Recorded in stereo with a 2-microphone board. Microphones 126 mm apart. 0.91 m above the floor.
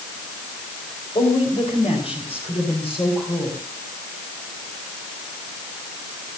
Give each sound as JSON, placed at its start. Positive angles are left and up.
{"t": 1.1, "sound": "a woman speaking", "side_deg": 50, "distance_m": 3.5}